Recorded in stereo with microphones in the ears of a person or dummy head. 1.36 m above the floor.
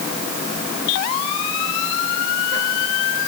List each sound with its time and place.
Only background noise.